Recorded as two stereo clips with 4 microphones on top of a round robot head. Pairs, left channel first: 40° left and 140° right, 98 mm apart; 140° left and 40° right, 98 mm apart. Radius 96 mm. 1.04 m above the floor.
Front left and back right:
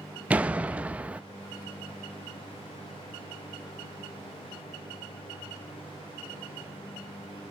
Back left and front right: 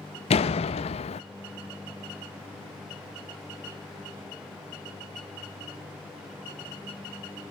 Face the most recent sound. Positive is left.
turn(degrees=145)